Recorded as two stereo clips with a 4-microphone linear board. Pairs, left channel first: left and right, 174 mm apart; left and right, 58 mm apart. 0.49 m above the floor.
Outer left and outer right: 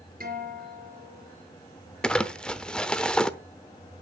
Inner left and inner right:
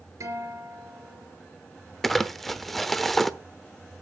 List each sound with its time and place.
0.2 s a guitar: 60° right (ahead or behind), 5 m
2.0 s crumpling: 5° left (ahead or behind), 0.9 m